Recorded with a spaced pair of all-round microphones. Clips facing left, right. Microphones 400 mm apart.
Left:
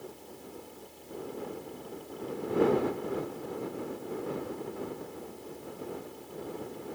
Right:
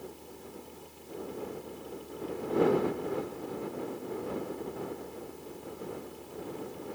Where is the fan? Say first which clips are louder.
Even; 20° right (ahead or behind).